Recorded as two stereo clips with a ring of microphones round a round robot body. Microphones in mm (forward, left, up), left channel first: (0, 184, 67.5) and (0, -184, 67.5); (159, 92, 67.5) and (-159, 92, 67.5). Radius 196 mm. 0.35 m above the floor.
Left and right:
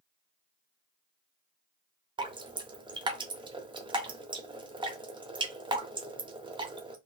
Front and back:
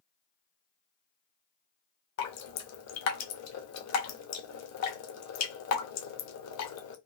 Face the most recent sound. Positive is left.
turn(degrees=-15)